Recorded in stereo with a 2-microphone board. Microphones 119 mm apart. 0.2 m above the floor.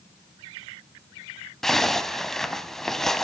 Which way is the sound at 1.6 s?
5° left (ahead or behind).